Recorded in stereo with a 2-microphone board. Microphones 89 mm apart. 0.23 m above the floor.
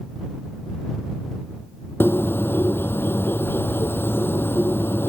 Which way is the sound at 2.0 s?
25° left (ahead or behind).